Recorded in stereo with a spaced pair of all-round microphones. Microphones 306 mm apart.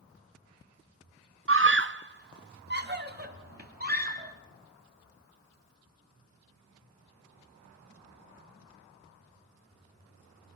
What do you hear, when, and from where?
1.5 s a scream: 45° right (ahead or behind), 0.6 m; by 4.3 s 30° right (ahead or behind), 3.5 m